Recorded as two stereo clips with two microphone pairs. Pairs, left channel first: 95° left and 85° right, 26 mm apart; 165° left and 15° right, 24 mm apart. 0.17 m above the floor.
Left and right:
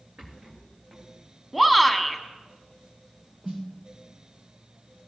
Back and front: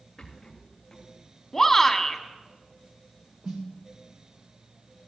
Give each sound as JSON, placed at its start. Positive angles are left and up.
{"t": 0.2, "sound": "a rattle", "azimuth_deg": -120, "distance_m": 3.5}
{"t": 1.5, "sound": "a shout", "azimuth_deg": -160, "distance_m": 1.0}
{"t": 3.4, "sound": "a snare drum", "azimuth_deg": -25, "distance_m": 3.0}